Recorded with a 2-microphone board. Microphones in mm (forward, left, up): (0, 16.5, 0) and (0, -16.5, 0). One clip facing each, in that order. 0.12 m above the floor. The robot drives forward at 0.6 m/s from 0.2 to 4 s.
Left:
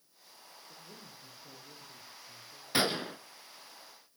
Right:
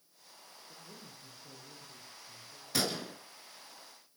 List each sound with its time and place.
0.7 s a man speaking: 10° left (ahead or behind), 6 m
2.7 s a gunshot: 30° left (ahead or behind), 0.8 m; by 3.2 s 35° left (ahead or behind), 0.7 m